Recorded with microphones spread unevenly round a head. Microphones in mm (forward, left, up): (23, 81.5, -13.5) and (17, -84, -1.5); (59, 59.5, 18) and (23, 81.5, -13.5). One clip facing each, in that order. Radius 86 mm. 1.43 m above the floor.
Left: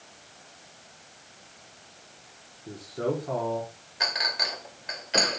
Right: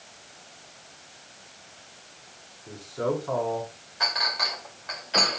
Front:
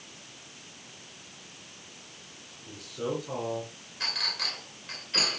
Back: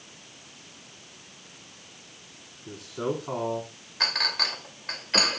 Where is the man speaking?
155° left, 4 m.